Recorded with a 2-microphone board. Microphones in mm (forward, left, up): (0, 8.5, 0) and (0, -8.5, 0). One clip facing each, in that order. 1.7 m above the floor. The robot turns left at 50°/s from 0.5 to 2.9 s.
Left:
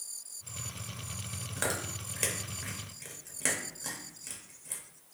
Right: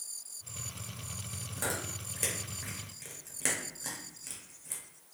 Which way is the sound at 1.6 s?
40° left (ahead or behind).